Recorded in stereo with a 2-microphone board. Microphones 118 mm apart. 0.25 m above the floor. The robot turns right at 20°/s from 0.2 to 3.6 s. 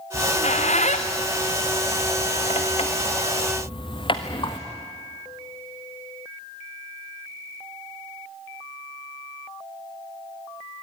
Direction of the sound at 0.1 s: 65° left (ahead or behind).